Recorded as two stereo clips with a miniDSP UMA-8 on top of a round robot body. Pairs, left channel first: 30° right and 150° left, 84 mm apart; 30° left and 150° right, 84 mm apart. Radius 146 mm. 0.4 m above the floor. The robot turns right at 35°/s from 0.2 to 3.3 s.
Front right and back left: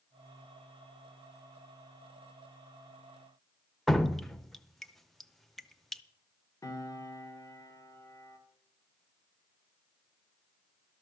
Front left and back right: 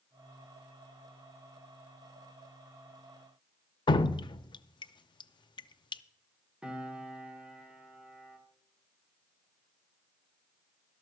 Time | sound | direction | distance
3.9 | dripping | 55° left | 0.6 m
6.6 | a piano | 75° right | 2 m